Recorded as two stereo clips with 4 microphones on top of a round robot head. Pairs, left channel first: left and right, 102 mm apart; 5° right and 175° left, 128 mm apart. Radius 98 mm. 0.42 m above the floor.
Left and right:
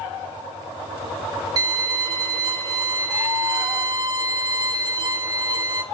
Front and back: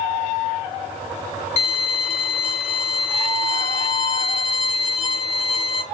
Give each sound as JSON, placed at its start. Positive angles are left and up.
{"t": 1.6, "sound": "a violin", "azimuth_deg": -45, "distance_m": 0.9}